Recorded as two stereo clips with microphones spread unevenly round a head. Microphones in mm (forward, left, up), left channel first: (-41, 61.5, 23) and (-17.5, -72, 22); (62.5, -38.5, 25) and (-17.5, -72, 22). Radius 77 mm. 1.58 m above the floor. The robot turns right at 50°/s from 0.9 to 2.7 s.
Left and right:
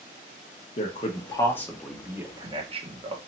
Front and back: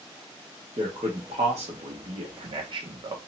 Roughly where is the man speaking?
Behind left.